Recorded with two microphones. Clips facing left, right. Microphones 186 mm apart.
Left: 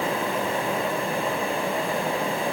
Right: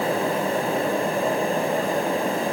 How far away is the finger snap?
I don't hear a finger snap.